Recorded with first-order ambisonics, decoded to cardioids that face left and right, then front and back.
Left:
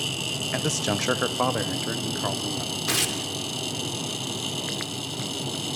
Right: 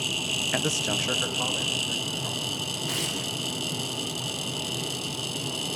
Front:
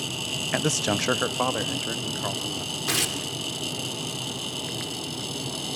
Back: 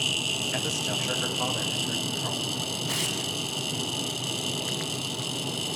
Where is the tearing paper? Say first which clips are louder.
Left 6 dB, front 5 dB; 35° left, 3 m.